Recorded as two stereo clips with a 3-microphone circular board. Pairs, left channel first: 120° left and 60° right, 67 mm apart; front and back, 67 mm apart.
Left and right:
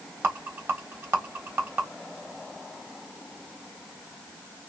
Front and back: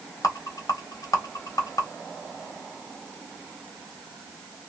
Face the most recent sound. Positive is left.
turn(degrees=-10)